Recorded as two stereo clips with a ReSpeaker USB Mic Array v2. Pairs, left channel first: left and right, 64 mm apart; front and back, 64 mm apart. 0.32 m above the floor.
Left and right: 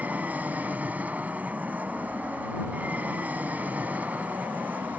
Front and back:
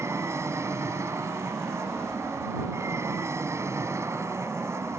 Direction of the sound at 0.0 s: 150° right.